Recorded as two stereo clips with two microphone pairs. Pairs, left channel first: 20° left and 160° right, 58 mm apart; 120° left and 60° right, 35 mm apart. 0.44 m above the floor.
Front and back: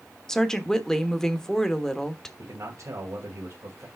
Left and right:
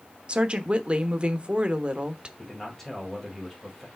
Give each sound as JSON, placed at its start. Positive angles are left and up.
{"t": 0.3, "sound": "a woman speaking", "azimuth_deg": -45, "distance_m": 1.1}
{"t": 2.4, "sound": "a man speaking", "azimuth_deg": -165, "distance_m": 2.0}